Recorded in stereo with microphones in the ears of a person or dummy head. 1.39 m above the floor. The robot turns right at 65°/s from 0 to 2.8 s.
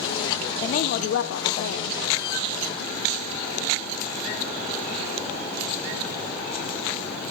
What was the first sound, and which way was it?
A woman speaking, 40° left.